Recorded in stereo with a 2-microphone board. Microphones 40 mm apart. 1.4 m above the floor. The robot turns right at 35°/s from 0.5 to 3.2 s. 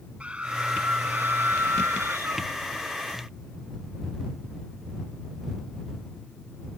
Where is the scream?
150° right; by 2.5 s 80° right.